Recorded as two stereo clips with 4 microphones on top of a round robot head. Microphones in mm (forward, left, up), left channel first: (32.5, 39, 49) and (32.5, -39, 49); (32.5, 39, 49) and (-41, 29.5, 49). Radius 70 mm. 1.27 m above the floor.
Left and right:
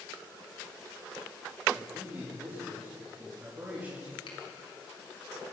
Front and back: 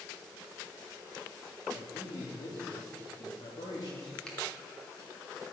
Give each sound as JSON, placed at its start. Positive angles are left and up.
{"t": 1.7, "sound": "a man speaking", "azimuth_deg": -25, "distance_m": 3.0}
{"t": 4.3, "sound": "a finger snap", "azimuth_deg": 85, "distance_m": 3.5}